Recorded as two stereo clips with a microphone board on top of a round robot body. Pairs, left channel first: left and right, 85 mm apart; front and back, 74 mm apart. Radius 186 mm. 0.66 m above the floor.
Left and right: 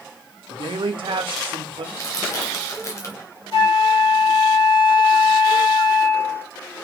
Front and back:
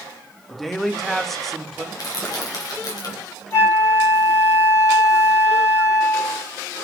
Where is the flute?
50° left, 4.5 m.